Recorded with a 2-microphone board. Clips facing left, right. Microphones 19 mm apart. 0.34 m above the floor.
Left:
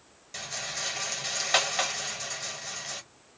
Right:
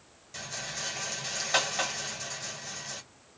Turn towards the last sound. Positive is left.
turn(degrees=30)  # may be behind; listen again after turning